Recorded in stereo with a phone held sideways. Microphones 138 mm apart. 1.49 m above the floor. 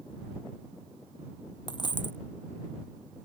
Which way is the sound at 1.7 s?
35° left (ahead or behind).